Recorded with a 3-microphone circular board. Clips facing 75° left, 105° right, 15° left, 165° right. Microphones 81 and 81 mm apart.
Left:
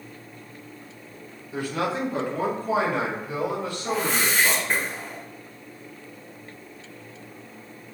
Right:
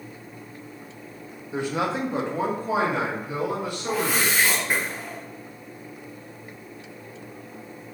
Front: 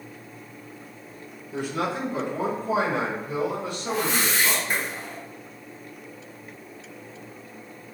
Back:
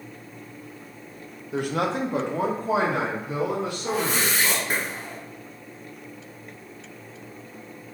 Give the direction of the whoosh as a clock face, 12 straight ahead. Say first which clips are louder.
Right 1 dB, front 1 dB; 6 o'clock.